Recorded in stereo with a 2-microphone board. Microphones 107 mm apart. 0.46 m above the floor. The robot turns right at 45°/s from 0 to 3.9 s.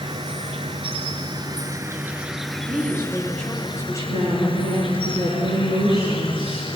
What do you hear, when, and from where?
0.0 s an insect: 115° right, 0.9 m; by 6.8 s 60° left, 0.9 m
2.7 s a woman speaking: 25° right, 3 m; by 5.1 s 30° left, 3 m
4.1 s a woman speaking: 70° right (ahead or behind), 7 m